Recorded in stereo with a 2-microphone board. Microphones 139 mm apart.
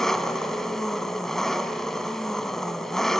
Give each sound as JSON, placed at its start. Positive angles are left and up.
{"t": 0.0, "sound": "an engine running", "side_deg": 5, "distance_m": 1.0}